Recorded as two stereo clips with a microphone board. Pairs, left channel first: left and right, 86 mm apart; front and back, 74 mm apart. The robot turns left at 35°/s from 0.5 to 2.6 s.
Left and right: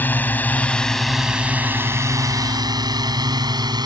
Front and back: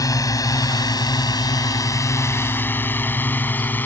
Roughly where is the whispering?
I don't hear whispering.